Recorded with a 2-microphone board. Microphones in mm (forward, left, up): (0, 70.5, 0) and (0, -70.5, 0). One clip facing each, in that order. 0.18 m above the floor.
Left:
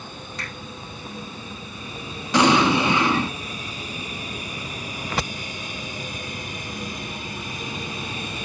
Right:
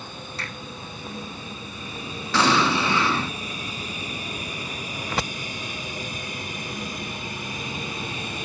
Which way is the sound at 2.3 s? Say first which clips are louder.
Left 4 dB; 15° left (ahead or behind).